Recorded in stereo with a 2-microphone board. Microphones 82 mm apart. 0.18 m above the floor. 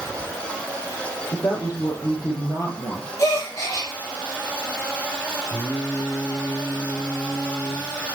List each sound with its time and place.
1.3 s a woman speaking: 55° left (ahead or behind), 6.5 m; by 3.1 s 45° left (ahead or behind), 7 m
3.2 s a gasp: 40° left (ahead or behind), 5.5 m
5.5 s singing: 35° left (ahead or behind), 7.5 m